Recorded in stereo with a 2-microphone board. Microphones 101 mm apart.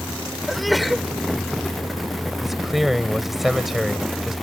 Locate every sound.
0.5 s a sneeze: centre (ahead or behind)
2.4 s a man speaking: centre (ahead or behind)